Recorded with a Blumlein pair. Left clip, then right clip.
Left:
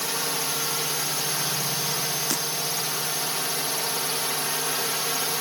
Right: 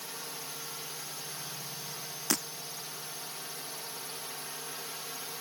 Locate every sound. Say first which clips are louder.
0.0 s a drone: left 14 dB; 35° left
2.3 s breaking glass: right 1 dB; straight ahead